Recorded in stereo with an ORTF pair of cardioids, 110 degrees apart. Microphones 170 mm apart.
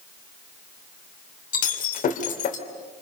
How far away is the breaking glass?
About 3 m.